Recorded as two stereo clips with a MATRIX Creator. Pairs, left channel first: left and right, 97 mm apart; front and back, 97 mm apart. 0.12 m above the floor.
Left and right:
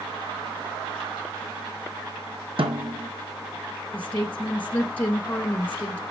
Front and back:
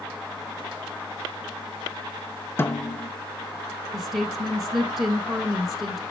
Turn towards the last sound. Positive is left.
turn(degrees=105)